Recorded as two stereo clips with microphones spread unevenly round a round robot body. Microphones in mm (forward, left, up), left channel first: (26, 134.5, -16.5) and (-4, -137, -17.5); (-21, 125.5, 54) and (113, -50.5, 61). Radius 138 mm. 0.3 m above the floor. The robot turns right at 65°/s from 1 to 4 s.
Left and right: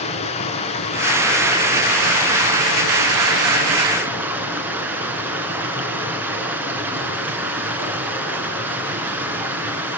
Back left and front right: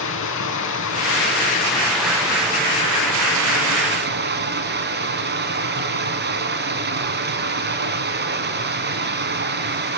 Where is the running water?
150° left, 3 m; by 10.0 s 15° right, 3 m.